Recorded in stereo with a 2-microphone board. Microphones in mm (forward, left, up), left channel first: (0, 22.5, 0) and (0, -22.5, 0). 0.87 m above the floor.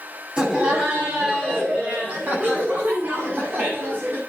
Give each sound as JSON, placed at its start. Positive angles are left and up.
{"t": 0.4, "sound": "laughter", "side_deg": -25, "distance_m": 7.5}